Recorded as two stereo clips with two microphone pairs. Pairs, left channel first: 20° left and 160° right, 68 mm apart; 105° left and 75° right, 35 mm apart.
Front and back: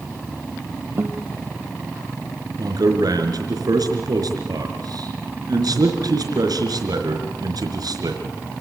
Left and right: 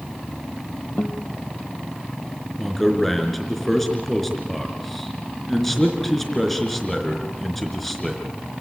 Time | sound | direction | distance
1.0 | a guitar | 145° left | 1.6 m
2.6 | a man speaking | 165° right | 4 m